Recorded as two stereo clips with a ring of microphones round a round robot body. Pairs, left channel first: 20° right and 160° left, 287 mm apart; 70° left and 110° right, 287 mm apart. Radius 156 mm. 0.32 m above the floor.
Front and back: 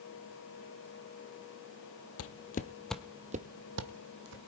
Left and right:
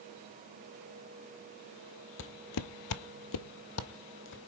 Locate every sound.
2.2 s footsteps: 20° left, 0.8 m; by 4.5 s 120° left, 1.4 m